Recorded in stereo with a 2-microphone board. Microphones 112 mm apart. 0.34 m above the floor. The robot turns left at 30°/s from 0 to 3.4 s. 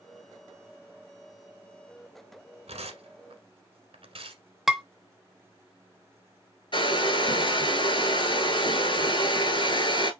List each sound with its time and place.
2.7 s tearing paper: 85° right, 1.1 m; by 4.4 s 65° right (ahead or behind), 1.1 m
4.7 s dishes clattering: centre (ahead or behind), 0.6 m
6.7 s a hair dryer: 50° left (ahead or behind), 0.8 m